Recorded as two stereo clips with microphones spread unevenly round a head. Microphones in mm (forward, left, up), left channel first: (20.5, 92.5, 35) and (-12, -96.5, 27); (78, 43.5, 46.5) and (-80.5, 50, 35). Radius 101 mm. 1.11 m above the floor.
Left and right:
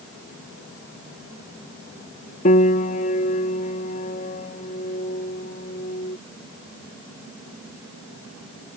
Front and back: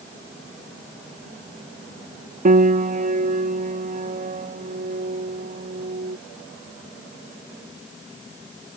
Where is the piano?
135° left.